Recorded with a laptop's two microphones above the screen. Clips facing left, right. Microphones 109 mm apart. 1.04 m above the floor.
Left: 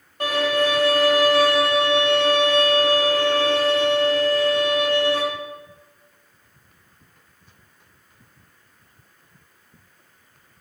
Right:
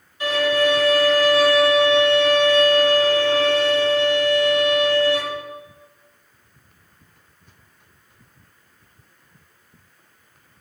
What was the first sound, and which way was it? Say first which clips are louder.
A violin: right 2 dB; 60° left (ahead or behind).